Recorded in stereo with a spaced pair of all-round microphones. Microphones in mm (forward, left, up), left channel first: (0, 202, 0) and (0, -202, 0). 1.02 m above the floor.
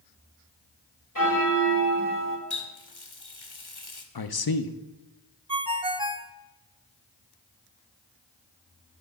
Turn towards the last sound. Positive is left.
turn(degrees=-15)  # may be behind; listen again after turning